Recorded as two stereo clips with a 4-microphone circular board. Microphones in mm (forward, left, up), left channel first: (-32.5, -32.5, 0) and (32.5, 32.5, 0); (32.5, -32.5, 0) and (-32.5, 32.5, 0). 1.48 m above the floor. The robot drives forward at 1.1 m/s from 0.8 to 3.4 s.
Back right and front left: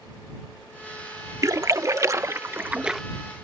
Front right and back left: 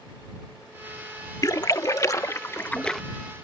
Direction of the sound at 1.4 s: Straight ahead.